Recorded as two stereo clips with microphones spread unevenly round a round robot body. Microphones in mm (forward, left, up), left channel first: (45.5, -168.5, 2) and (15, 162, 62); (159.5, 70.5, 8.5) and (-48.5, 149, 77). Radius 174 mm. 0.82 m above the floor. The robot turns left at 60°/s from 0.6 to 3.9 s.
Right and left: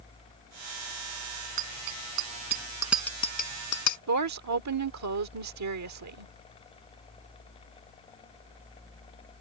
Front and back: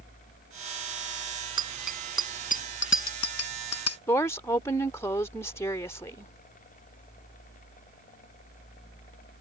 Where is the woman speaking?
55° left.